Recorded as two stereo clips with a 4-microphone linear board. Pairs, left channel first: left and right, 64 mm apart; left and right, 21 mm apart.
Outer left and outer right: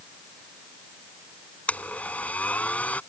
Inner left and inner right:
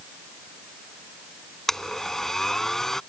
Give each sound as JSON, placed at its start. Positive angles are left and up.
{"t": 1.7, "sound": "a blender", "side_deg": 20}